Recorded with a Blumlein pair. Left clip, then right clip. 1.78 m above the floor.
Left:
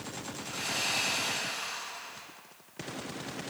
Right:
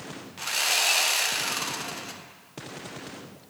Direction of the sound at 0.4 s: 40° right.